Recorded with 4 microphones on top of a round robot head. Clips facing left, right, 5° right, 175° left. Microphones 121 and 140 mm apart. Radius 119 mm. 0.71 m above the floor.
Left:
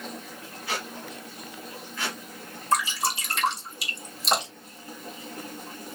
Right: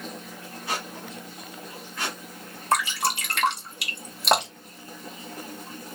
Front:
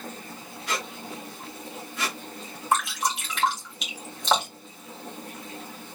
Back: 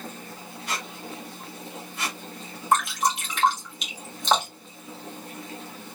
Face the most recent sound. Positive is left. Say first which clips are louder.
# right 1 dB, back 3 dB
turn(degrees=-95)